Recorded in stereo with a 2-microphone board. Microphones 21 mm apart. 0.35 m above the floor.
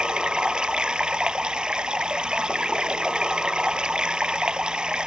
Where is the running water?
55° right (ahead or behind).